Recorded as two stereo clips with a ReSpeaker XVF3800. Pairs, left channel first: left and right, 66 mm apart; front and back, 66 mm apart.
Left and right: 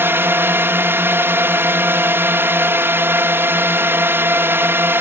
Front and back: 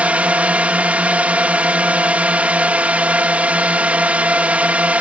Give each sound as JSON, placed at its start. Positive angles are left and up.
{"t": 0.0, "sound": "a drone", "azimuth_deg": -120}